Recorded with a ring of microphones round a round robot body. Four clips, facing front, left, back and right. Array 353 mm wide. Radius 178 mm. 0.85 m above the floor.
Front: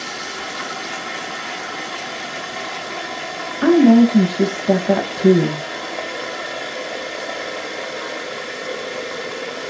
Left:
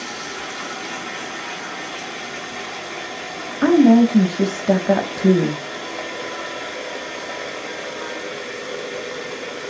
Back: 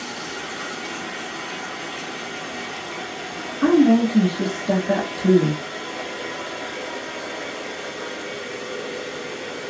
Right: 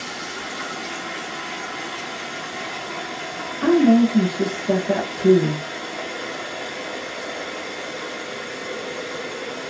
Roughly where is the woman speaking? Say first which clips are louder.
Left 3 dB, front 4 dB; ahead left.